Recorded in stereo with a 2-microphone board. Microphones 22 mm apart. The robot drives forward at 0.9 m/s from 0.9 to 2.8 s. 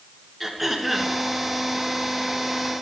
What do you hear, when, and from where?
0.4 s throat clearing: 5° right (ahead or behind), 1.7 m